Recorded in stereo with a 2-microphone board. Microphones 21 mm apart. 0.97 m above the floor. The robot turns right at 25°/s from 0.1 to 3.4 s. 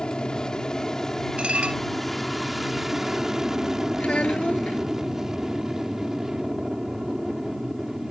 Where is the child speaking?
85° left.